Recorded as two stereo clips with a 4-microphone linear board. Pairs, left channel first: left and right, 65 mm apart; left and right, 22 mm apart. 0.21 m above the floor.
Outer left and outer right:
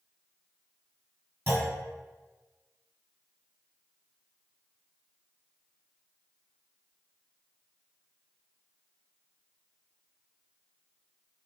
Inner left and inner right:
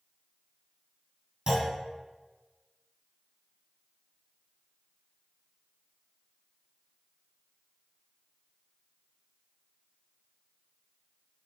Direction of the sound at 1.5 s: 30° right (ahead or behind).